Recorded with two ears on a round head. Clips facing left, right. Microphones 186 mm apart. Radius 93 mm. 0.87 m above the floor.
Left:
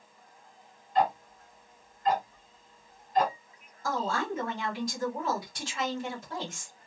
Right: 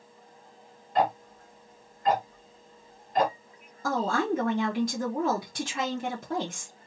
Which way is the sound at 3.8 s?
50° right (ahead or behind).